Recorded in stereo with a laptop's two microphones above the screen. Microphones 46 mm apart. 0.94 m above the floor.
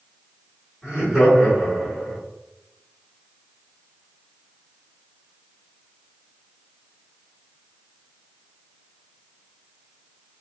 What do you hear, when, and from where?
0.8 s laughter: 15° right (ahead or behind), 1.9 m